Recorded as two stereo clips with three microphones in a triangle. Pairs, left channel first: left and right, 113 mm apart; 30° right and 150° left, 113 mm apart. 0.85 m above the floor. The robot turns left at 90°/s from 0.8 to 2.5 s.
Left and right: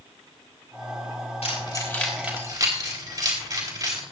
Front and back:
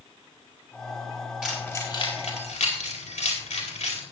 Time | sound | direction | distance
1.4 | keys jangling | 70° left | 4 m